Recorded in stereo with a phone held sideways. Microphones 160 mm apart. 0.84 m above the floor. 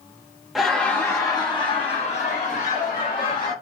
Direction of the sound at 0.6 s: Centre (ahead or behind).